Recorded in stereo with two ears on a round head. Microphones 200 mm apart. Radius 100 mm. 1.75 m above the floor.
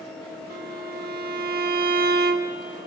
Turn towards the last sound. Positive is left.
turn(degrees=-45)  # may be behind; listen again after turning